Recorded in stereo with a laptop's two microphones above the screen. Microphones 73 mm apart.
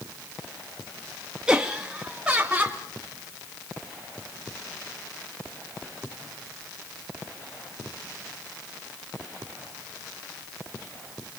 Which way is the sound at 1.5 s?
10° right (ahead or behind).